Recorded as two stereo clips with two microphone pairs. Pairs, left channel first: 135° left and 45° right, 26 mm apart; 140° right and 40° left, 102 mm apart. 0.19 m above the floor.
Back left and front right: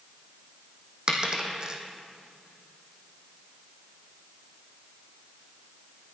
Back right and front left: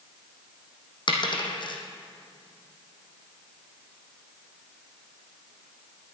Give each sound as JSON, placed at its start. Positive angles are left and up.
{"t": 1.1, "sound": "a dropped coin", "azimuth_deg": -105, "distance_m": 2.5}